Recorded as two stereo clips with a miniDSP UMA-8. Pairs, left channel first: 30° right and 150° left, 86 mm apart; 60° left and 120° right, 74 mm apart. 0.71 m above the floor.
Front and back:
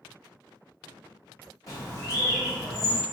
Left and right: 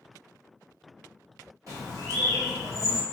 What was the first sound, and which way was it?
A bird, 75° right.